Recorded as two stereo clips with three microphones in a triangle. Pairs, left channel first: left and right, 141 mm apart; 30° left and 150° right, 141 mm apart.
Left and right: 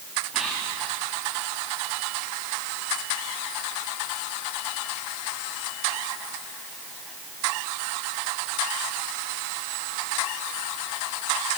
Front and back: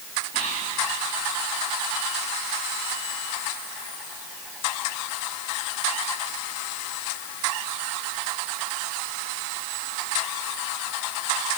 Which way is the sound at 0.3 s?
5° right.